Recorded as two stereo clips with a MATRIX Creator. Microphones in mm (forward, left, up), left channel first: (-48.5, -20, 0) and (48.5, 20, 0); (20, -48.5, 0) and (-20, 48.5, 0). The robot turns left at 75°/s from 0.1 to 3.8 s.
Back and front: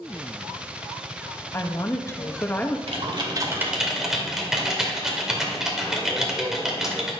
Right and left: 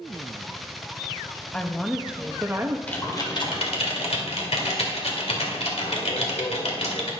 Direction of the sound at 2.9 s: 5° left.